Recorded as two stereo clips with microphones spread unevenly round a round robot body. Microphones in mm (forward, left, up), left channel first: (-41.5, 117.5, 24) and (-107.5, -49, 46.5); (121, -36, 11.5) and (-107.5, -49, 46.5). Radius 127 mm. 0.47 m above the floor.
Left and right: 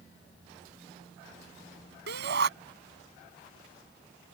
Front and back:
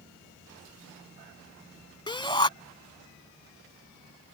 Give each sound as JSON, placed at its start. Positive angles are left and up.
{"t": 2.1, "sound": "a shout", "azimuth_deg": -65}